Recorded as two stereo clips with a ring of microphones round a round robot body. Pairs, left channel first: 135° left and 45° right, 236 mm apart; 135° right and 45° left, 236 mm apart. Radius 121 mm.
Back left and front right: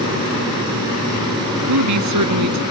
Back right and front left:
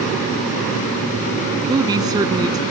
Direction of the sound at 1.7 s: 30° right.